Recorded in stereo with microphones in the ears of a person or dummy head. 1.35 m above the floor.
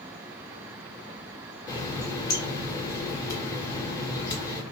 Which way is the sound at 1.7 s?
15° left (ahead or behind).